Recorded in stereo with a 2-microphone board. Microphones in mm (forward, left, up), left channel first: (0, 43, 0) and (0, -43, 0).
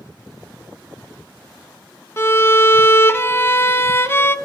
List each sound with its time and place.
2.2 s a violin: 30° left (ahead or behind), 0.5 m